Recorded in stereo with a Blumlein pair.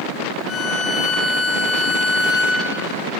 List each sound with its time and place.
0.5 s a violin: 15° left, 6 m